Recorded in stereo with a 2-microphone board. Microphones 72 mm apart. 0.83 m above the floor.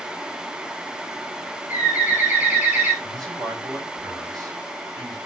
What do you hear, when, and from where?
1.7 s a bird: 25° right (ahead or behind), 3.5 m
3.0 s a man speaking: 60° right (ahead or behind), 5 m